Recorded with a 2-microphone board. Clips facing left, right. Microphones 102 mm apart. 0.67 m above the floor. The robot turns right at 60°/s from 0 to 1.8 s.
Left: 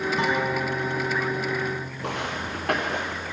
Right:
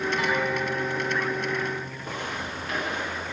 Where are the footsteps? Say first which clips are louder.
Left 3 dB; 75° left (ahead or behind), 4 m; by 3.2 s 50° left (ahead or behind), 4.5 m.